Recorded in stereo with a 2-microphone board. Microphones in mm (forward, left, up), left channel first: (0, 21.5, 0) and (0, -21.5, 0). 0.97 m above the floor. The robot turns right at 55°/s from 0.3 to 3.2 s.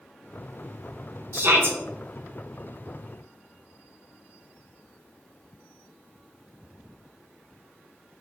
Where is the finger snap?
I don't hear a finger snap.